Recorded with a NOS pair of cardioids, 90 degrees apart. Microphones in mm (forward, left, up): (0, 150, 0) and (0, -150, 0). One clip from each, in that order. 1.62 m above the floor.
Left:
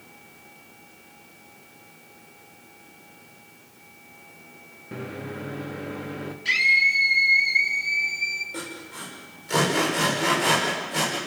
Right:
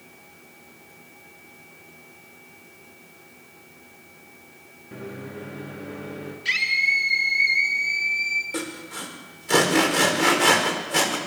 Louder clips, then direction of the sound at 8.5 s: Right 4 dB; 55° right.